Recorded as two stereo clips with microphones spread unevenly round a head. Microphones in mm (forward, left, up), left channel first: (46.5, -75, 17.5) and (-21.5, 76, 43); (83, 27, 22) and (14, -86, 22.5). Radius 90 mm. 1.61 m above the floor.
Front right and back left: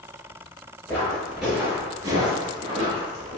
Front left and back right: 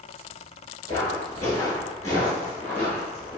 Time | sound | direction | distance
0.9 | footsteps | 15° left | 1.8 m